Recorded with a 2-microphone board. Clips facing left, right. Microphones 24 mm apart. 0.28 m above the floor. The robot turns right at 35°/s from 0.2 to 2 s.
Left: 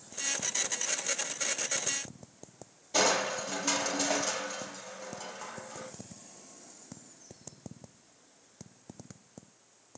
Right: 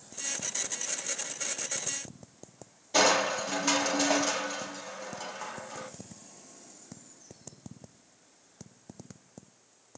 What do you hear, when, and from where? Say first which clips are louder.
2.9 s crushing: right 3 dB; 15° right (ahead or behind), 1.0 m